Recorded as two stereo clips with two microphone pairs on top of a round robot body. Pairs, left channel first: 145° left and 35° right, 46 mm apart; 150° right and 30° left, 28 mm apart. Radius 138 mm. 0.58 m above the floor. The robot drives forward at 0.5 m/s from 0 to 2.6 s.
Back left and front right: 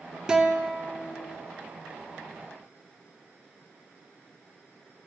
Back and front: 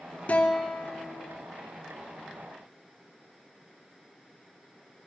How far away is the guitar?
About 1.0 m.